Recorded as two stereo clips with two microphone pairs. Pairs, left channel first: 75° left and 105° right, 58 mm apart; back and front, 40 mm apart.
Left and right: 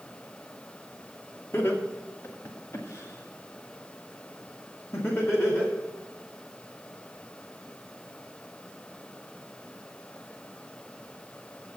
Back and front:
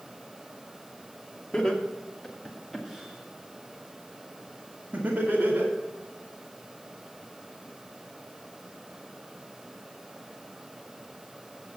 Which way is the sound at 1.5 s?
115° left.